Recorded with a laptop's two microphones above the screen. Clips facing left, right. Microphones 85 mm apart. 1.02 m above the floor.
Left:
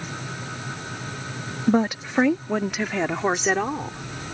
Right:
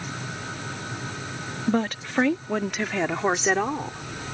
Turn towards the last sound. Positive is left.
turn(degrees=-5)  # may be behind; listen again after turning